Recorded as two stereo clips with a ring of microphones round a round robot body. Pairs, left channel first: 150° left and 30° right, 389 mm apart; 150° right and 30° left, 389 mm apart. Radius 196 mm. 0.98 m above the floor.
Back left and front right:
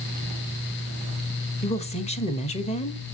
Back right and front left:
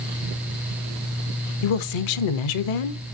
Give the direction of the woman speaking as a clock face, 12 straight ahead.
5 o'clock.